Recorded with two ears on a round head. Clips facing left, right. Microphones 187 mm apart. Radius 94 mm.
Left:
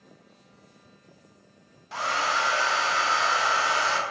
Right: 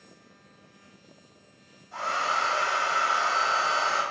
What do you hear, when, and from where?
1.9 s a hair dryer: 80° left, 0.5 m